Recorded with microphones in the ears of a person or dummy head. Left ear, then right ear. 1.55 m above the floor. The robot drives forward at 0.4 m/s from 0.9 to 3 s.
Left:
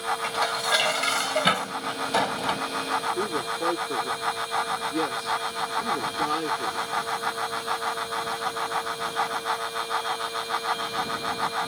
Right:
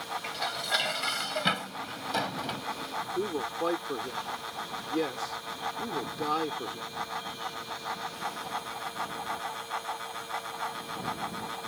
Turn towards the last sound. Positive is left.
turn(degrees=-15)  # may be behind; listen again after turning